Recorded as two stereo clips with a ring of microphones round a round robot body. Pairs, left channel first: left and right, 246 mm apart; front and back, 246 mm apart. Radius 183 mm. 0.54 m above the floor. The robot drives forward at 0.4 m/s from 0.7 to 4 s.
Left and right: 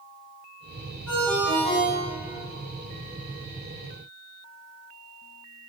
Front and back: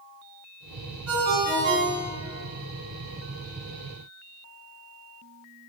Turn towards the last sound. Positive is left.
turn(degrees=180)